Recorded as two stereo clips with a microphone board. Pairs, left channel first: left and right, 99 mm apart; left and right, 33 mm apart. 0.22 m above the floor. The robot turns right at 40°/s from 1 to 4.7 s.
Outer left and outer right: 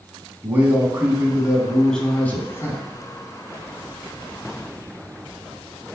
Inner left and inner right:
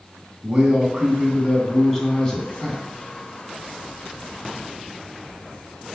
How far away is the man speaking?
About 2.0 m.